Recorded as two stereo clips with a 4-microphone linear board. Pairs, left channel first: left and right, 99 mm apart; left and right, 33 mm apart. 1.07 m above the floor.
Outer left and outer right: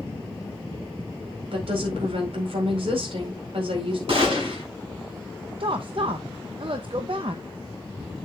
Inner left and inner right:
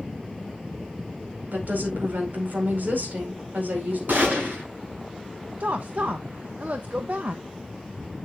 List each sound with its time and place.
1.5 s a woman speaking: 70° right (ahead or behind), 4.5 m
4.1 s a gunshot: 65° right (ahead or behind), 6.5 m
5.6 s a woman speaking: 60° right (ahead or behind), 0.7 m